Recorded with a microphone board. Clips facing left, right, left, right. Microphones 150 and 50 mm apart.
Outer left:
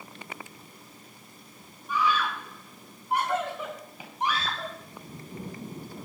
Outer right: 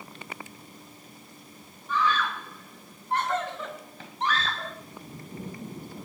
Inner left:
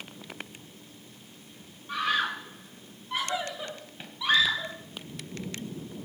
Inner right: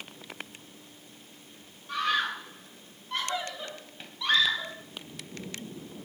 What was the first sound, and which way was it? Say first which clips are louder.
A scream: even, even; 10° left (ahead or behind).